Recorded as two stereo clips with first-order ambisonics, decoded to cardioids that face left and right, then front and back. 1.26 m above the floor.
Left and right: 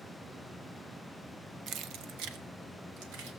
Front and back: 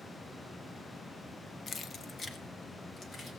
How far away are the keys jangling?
About 0.5 m.